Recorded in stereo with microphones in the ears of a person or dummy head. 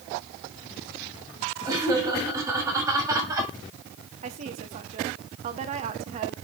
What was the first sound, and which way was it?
Laughter, 20° right (ahead or behind).